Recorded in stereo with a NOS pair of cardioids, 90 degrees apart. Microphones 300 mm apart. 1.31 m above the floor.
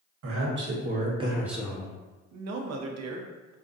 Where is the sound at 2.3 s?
60° right, 0.6 m.